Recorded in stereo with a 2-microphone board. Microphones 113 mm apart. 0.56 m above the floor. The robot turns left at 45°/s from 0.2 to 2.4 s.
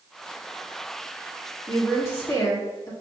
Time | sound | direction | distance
1.7 | a woman speaking | 160° left | 1.3 m